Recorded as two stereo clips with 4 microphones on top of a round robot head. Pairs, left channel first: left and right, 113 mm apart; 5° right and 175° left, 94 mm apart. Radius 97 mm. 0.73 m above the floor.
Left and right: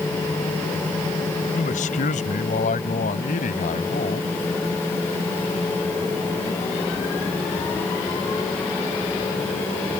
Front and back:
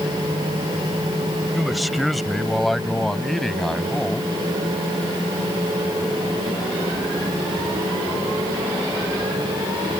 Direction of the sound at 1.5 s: 85° left.